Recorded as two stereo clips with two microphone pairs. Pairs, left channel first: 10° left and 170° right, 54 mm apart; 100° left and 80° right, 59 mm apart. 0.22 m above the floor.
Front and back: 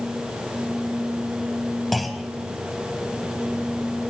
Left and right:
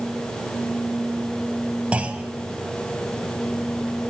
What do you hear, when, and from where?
1.9 s a clunk: 80° right, 0.5 m